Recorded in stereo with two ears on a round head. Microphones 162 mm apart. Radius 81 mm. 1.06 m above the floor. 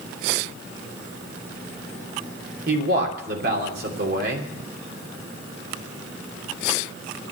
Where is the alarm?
I don't hear an alarm.